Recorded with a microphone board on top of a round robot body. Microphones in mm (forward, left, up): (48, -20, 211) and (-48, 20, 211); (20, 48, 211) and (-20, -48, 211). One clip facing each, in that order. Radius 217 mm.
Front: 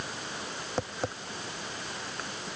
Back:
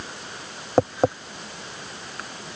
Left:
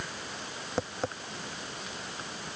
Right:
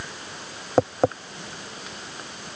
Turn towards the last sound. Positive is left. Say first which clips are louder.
# back 14 dB, right 13 dB
turn(degrees=-160)